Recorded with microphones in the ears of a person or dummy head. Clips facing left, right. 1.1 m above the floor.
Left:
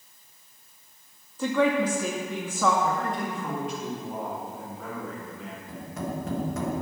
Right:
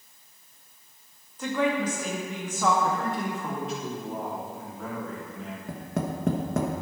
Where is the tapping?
55° right (ahead or behind), 1.1 m.